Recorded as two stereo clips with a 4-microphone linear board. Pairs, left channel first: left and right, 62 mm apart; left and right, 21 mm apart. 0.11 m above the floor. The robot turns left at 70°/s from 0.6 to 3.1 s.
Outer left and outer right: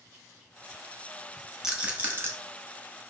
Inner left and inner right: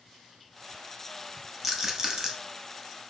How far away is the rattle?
About 1.0 m.